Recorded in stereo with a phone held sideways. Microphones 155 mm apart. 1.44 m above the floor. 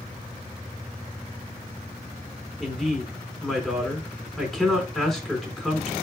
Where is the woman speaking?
Centre (ahead or behind), 4 m.